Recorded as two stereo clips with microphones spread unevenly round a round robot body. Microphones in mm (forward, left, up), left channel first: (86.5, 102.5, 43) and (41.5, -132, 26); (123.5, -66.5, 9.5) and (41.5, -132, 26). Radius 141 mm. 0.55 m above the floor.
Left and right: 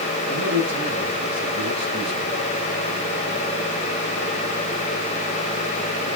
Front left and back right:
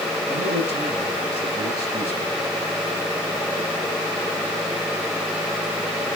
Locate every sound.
0.3 s a man speaking: 170° right, 7 m